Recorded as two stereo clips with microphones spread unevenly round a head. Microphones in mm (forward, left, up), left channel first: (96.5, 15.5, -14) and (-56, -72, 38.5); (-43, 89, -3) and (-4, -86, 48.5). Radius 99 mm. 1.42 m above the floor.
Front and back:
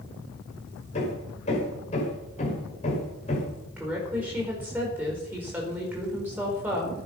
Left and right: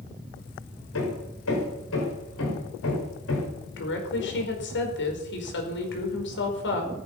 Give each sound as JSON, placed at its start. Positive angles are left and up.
{"t": 0.9, "sound": "hammering", "azimuth_deg": 90, "distance_m": 6.0}
{"t": 3.8, "sound": "a woman speaking", "azimuth_deg": 130, "distance_m": 5.0}